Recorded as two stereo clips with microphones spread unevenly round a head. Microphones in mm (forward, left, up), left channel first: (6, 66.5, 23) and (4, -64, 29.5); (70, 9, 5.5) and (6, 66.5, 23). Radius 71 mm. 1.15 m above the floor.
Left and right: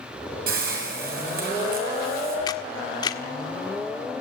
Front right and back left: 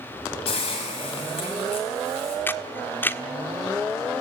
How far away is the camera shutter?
About 1.4 m.